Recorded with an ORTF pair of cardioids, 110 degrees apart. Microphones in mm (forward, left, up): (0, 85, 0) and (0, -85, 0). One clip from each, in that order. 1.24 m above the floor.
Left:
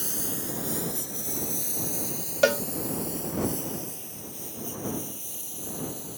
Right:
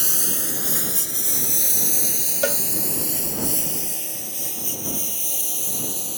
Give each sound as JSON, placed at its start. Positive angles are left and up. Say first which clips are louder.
{"t": 0.0, "sound": "a lawn mower", "louder": "right 8 dB", "azimuth_deg": -55}
{"t": 2.4, "sound": "a cowbell", "louder": "left 3 dB", "azimuth_deg": 15}